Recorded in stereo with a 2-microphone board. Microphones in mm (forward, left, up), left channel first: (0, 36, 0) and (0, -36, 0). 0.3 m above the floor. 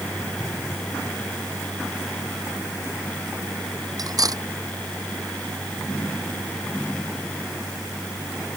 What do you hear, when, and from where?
4.0 s cutlery clinking: 55° right (ahead or behind)